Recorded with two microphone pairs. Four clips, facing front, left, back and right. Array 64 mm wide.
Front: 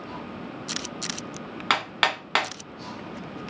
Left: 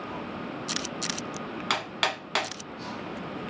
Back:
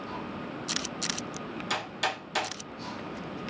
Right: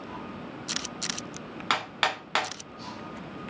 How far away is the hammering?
About 0.7 m.